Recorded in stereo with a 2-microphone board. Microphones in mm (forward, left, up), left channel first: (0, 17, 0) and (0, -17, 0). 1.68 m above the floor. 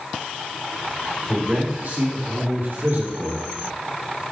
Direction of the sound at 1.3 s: 55° right (ahead or behind).